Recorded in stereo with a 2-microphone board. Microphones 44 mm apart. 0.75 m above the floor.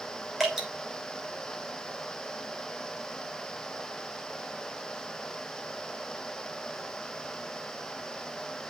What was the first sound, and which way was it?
Dripping, centre (ahead or behind).